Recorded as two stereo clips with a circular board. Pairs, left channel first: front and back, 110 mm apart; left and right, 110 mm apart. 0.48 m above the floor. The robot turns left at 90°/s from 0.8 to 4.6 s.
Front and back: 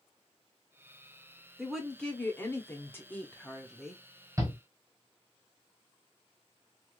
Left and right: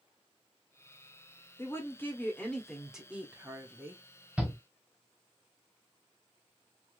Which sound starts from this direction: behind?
A shout, at 4.4 s.